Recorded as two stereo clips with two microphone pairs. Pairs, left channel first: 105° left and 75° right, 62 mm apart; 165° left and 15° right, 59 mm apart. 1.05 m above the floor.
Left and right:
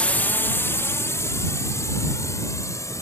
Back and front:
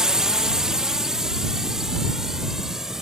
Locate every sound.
0.0 s a drone: 55° left; by 3.0 s 70° left